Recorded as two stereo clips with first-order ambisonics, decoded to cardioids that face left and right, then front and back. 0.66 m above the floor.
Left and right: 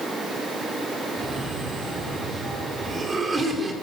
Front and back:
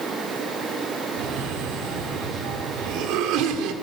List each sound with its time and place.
1.2 s a cough: 160° right, 1.5 m